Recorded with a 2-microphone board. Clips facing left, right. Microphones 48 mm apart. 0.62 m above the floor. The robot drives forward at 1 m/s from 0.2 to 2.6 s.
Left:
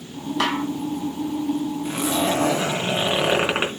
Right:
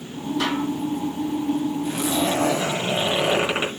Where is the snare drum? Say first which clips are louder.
Left 2 dB; 75° left (ahead or behind), 3 m.